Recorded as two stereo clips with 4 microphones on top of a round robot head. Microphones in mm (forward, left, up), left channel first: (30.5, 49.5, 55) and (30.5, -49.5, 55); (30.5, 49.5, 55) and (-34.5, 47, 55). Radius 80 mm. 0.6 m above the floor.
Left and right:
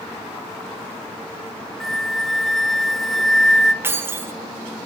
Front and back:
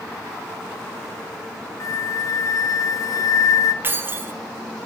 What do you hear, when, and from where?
1.8 s a flute: straight ahead, 0.6 m
3.8 s keys jangling: 145° right, 0.6 m